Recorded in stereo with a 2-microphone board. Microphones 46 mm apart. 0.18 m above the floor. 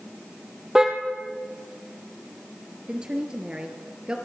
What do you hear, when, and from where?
0.8 s a car horn: 10° right (ahead or behind), 3 m
2.9 s a woman speaking: 25° right (ahead or behind), 3.5 m